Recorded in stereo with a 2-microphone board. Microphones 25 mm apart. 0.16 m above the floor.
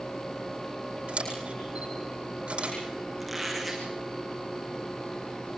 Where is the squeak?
Centre (ahead or behind), 5.5 m.